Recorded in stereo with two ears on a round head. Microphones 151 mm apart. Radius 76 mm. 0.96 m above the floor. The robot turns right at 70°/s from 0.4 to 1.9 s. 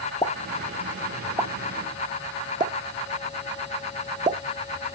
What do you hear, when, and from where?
0.2 s a pop: 20° left (ahead or behind), 0.5 m; by 4.4 s 25° right (ahead or behind), 0.5 m